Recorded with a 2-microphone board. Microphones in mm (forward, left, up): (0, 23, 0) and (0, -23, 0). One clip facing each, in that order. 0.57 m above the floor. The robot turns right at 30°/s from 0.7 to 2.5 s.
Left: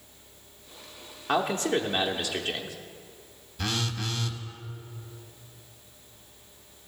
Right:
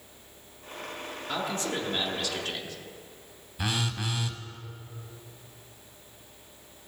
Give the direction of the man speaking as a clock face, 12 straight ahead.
8 o'clock.